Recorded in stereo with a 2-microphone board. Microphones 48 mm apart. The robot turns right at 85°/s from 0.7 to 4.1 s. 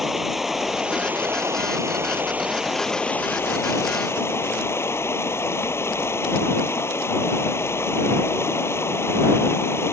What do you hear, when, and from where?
0.0 s running water: 175° right; by 9.9 s 110° left